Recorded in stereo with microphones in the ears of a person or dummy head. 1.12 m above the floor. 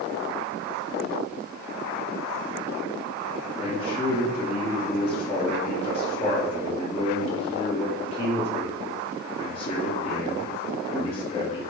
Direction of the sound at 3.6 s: 25° left (ahead or behind).